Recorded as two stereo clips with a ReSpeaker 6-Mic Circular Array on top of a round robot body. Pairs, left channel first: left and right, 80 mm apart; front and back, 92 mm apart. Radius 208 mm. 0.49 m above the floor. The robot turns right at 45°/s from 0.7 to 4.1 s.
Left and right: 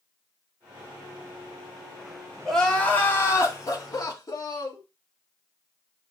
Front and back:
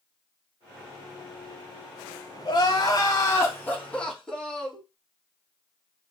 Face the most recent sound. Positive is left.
turn(degrees=80)